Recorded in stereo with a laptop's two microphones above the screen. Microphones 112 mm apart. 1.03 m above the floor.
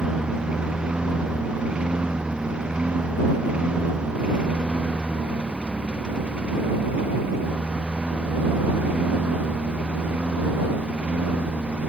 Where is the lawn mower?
10° right (ahead or behind).